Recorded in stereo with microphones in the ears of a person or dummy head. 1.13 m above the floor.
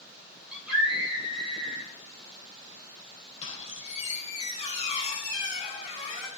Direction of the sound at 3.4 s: 40° left (ahead or behind).